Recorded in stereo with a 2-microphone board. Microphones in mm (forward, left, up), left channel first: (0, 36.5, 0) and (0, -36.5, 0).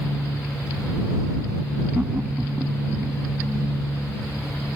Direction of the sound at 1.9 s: 20° right (ahead or behind).